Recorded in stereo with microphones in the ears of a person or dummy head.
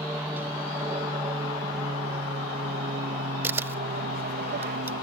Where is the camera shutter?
10° right (ahead or behind).